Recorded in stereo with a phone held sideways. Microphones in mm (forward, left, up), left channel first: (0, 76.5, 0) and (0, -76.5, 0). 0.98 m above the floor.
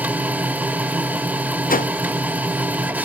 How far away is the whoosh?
About 0.5 m.